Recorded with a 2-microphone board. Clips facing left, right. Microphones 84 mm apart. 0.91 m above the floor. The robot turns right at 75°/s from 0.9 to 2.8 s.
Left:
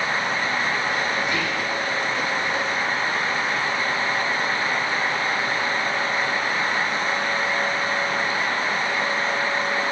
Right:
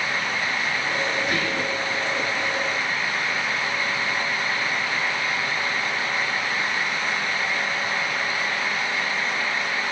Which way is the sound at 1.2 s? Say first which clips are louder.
Even; 60° right.